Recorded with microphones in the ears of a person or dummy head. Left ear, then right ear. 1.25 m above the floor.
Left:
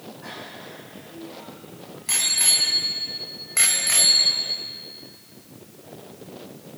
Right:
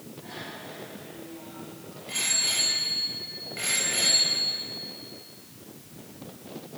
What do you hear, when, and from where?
0.2 s a bicycle bell: 50° left (ahead or behind), 8.5 m; by 4.6 s 55° left (ahead or behind), 3 m